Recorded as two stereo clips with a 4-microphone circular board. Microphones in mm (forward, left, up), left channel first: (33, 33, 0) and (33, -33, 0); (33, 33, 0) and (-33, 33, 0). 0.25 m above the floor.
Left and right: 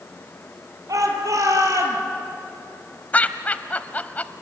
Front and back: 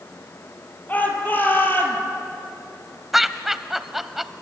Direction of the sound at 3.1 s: 100° left.